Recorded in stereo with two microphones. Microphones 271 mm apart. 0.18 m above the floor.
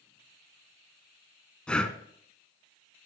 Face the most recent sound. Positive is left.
turn(degrees=5)  # may be behind; listen again after turning